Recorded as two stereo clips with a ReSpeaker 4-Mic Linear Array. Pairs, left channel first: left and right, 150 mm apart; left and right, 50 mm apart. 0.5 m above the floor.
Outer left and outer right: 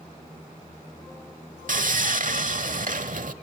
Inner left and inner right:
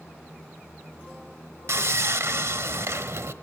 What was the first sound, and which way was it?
Sawing, 65° right (ahead or behind).